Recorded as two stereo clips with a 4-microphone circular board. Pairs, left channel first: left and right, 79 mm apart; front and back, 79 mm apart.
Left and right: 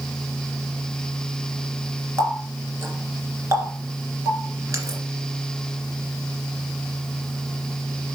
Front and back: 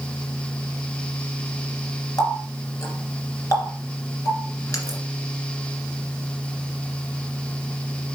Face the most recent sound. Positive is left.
turn(degrees=-40)